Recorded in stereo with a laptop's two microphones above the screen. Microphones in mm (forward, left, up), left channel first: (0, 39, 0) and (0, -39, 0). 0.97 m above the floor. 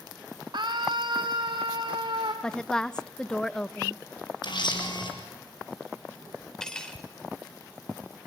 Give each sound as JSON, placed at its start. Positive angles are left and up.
{"t": 0.5, "sound": "a scream", "side_deg": -65, "distance_m": 2.0}
{"t": 2.4, "sound": "a woman speaking", "side_deg": 10, "distance_m": 0.6}
{"t": 4.4, "sound": "a camera shutter", "side_deg": 65, "distance_m": 4.5}
{"t": 6.6, "sound": "cutlery clinking", "side_deg": 10, "distance_m": 2.5}